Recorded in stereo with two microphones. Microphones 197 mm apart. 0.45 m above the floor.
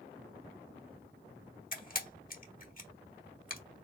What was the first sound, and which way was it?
A camera shutter, 45° left (ahead or behind).